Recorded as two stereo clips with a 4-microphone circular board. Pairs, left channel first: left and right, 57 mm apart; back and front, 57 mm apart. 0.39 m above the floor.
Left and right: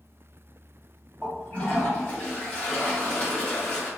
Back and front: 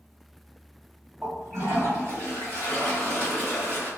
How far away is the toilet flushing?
About 1.8 m.